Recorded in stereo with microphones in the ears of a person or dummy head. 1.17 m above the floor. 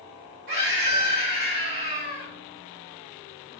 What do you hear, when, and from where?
0.5 s a scream: 65° right (ahead or behind), 1.7 m